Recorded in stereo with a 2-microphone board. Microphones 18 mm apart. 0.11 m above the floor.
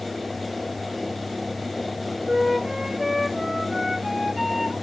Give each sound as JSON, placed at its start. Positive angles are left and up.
{"t": 2.2, "sound": "a flute", "side_deg": -20, "distance_m": 2.0}